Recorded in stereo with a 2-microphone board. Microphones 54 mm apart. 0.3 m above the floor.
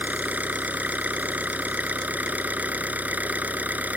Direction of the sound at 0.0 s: 30° right (ahead or behind).